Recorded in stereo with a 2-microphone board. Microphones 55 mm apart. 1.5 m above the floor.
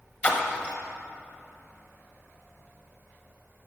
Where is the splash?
30° left (ahead or behind), 0.9 m.